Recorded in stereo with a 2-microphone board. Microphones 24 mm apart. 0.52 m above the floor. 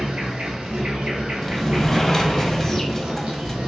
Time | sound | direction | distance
0.0 | an insect | 70° right (ahead or behind) | 1.5 m
1.4 | a sliding door | 20° left (ahead or behind) | 0.6 m